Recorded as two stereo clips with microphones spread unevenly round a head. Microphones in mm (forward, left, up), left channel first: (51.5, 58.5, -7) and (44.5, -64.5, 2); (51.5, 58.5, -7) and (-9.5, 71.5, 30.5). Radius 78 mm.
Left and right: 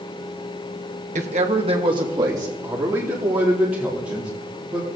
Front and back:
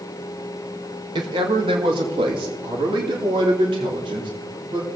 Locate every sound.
1.1 s a man speaking: 135° right, 1.3 m; by 4.9 s straight behind, 4 m